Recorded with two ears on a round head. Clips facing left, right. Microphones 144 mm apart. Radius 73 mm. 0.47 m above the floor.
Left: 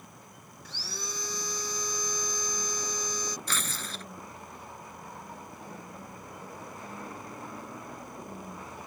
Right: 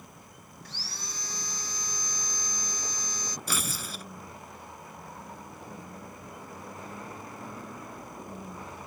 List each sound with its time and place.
0.7 s sawing: 75° left (ahead or behind)
3.5 s tearing paper: 10° right (ahead or behind)